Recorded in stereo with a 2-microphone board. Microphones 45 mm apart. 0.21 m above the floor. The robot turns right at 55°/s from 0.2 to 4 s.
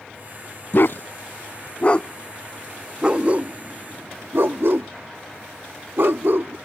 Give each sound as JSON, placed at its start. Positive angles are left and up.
{"t": 0.7, "sound": "a dog barking", "side_deg": 55}